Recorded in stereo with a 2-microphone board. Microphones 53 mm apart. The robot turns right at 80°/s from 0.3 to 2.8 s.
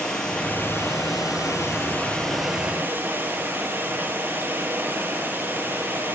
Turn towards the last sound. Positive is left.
turn(degrees=-145)